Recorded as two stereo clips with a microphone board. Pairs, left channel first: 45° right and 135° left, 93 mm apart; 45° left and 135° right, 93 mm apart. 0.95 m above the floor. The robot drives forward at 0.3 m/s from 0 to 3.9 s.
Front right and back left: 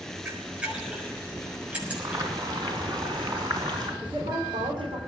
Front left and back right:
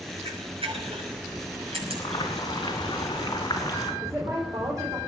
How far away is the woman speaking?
About 4 m.